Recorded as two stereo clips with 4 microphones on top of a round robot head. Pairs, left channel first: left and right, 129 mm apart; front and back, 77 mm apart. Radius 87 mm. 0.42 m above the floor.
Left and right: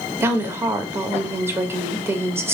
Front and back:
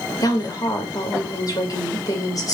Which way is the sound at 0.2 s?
25° right.